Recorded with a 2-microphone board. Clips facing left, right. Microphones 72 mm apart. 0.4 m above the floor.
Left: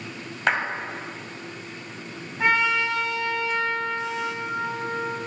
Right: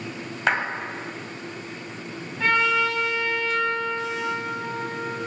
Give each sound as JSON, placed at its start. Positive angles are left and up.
{"t": 0.5, "sound": "a clap", "side_deg": 0, "distance_m": 2.0}
{"t": 2.4, "sound": "a trumpet", "side_deg": 20, "distance_m": 3.0}